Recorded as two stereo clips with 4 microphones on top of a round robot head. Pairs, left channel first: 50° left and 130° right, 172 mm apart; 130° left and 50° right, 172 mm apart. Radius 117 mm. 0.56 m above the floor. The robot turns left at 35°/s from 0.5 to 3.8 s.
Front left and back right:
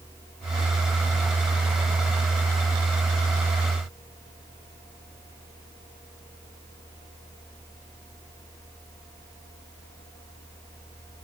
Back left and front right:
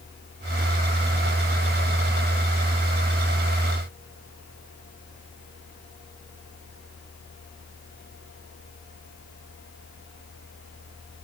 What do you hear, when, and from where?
Only background noise.